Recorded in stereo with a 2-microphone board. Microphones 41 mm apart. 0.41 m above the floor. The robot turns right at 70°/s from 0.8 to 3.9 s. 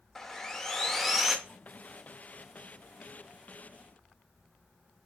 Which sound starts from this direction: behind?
Sawing, at 0.1 s.